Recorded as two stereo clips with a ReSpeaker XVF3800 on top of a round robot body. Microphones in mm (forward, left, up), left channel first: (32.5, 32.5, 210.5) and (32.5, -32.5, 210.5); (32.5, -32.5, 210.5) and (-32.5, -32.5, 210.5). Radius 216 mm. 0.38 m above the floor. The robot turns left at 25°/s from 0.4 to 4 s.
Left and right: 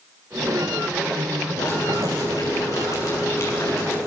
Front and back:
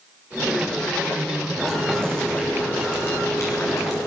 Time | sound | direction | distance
1.6 | boiling | 95° left | 9 m